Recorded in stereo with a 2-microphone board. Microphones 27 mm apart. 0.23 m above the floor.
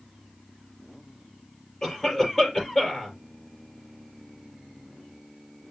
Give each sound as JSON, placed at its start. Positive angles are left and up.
{"t": 1.8, "sound": "a cough", "side_deg": 15, "distance_m": 5.0}